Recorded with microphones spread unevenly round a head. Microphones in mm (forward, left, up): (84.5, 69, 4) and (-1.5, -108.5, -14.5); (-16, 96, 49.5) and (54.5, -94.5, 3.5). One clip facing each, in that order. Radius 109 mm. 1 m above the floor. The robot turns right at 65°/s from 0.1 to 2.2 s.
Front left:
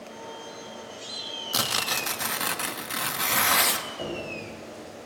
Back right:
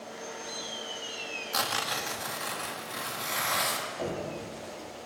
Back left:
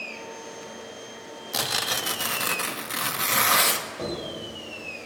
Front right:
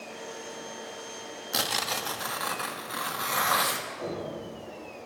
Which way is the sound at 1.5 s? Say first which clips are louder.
Front left 2 dB, back left 1 dB; 10° left.